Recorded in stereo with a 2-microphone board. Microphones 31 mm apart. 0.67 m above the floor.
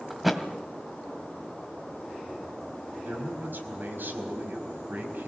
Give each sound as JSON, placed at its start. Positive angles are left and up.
{"t": 0.1, "sound": "a thud", "side_deg": 0, "distance_m": 1.7}
{"t": 3.0, "sound": "a man speaking", "side_deg": -75, "distance_m": 4.5}